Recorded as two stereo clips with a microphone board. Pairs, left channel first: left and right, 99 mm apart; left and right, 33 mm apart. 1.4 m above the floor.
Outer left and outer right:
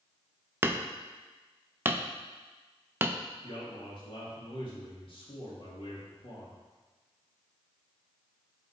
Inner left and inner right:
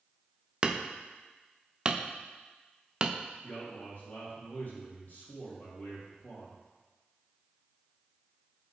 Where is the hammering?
20° right (ahead or behind), 0.5 m.